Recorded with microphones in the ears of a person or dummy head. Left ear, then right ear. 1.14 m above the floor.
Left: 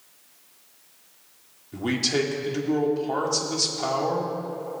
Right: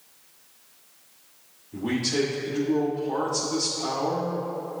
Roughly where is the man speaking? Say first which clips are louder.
Left 2 dB; left.